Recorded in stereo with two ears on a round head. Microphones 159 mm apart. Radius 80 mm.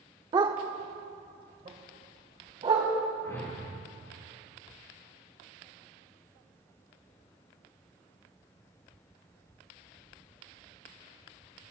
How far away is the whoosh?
About 5 m.